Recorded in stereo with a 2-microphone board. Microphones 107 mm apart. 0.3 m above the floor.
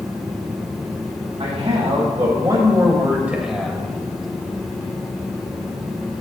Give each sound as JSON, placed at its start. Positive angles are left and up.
{"t": 1.4, "sound": "a man speaking", "side_deg": -55, "distance_m": 2.5}